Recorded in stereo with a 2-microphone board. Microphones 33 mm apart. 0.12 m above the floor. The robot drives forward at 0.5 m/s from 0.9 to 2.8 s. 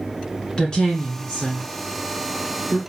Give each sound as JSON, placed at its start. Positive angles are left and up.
{"t": 0.6, "sound": "a woman speaking", "side_deg": 25, "distance_m": 1.5}